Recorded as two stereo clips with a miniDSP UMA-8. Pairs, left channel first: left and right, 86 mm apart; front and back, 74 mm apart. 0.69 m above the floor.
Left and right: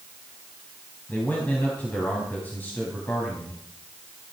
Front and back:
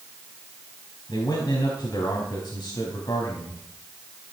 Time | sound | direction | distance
1.1 | a man speaking | 20° left | 5 m